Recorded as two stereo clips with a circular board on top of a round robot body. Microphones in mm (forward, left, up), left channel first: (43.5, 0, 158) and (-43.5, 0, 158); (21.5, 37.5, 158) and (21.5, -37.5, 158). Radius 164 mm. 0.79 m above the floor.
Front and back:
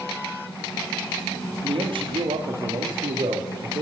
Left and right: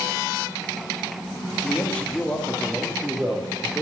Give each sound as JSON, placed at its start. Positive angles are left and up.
{"t": 1.6, "sound": "a man speaking", "azimuth_deg": 160, "distance_m": 2.0}